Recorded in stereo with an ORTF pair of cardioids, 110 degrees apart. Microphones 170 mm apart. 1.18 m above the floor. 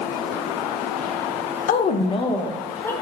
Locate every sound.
1.7 s a woman speaking: 50° left, 0.5 m; by 2.9 s 15° left, 1.0 m